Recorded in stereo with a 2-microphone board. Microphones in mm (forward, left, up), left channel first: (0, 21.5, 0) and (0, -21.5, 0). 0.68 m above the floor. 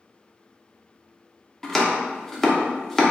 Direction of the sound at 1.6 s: 10° left (ahead or behind).